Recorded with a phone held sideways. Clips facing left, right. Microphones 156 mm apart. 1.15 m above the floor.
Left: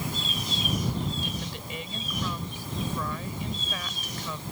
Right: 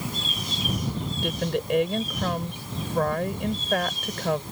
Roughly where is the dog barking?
No dog barking in this recording.